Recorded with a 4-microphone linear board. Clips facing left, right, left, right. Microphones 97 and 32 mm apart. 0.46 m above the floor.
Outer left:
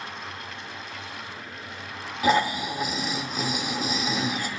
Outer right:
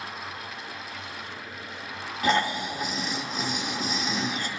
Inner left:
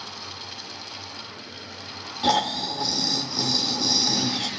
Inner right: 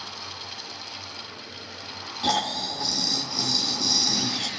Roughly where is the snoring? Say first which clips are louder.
Outer left 3 dB, inner left 3 dB; centre.